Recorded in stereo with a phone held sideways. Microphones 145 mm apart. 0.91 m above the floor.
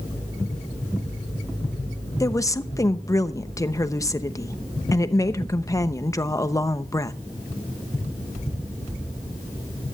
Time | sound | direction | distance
2.2 | a woman speaking | 25° left (ahead or behind) | 0.8 m